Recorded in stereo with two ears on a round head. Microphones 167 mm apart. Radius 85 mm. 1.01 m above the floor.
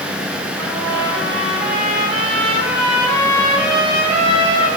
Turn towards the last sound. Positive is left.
turn(degrees=0)  # may be behind; listen again after turning